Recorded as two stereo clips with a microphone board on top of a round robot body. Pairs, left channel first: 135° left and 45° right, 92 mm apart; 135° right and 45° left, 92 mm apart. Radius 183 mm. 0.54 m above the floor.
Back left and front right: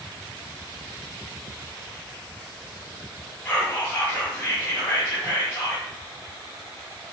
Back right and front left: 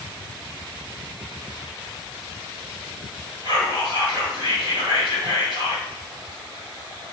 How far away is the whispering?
About 1.9 m.